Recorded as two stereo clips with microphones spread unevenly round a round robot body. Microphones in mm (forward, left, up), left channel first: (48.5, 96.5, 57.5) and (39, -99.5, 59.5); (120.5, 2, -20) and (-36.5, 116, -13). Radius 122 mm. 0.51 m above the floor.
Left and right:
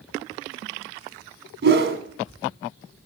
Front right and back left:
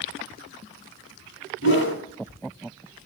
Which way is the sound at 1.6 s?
70° right.